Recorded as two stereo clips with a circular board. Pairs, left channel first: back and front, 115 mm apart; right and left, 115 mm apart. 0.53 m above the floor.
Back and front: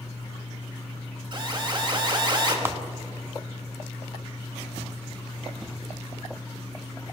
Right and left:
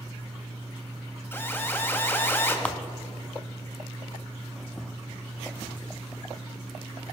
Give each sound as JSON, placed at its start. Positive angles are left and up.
{"t": 1.3, "sound": "an alarm", "azimuth_deg": -25, "distance_m": 2.5}
{"t": 2.6, "sound": "a clap", "azimuth_deg": -30, "distance_m": 0.5}